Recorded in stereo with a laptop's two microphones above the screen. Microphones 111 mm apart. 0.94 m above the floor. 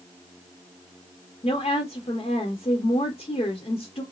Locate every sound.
1.4 s a woman speaking: 65° left (ahead or behind), 0.7 m